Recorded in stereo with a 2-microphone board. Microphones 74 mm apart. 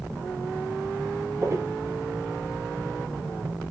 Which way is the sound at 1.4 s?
40° right (ahead or behind).